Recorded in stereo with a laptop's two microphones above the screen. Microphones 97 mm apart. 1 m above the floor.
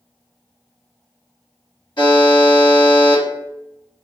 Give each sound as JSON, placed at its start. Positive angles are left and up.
{"t": 2.0, "sound": "a buzzer", "side_deg": 60, "distance_m": 1.5}